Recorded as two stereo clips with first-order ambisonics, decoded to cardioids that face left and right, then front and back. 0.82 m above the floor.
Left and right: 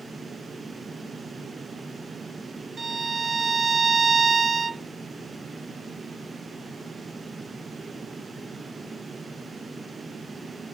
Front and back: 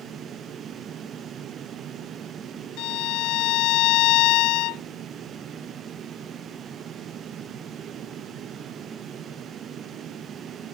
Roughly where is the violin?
Ahead.